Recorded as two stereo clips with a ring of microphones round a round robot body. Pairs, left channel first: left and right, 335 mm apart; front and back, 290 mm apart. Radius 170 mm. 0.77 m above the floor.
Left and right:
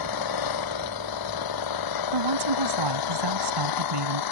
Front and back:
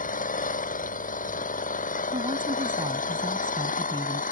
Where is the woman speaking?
105° right.